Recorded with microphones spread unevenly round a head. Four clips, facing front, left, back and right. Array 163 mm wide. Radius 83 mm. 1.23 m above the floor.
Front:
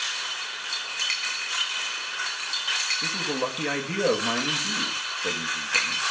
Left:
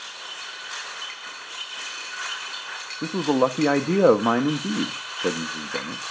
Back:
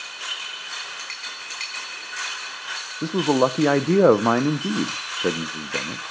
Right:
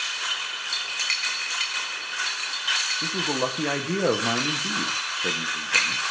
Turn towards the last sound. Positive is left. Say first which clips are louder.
# left 8 dB, back 11 dB
turn(degrees=155)